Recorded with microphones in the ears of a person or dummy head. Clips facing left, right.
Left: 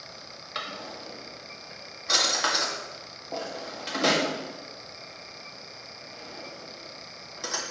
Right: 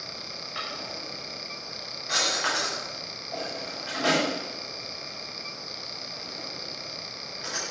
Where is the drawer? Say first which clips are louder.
Left 1 dB; 60° left (ahead or behind), 2.0 m.